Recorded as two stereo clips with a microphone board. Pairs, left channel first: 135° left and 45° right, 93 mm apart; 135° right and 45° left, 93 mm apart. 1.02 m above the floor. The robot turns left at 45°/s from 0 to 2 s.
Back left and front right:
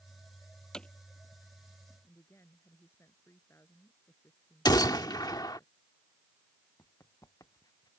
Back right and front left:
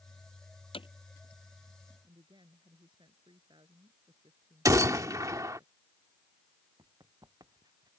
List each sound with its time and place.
0.7 s hammering: 140° right; by 0.9 s 150° right
2.0 s a woman speaking: 75° left
4.7 s a gunshot: 95° left
6.8 s running footsteps: 85° left; by 7.9 s 90° left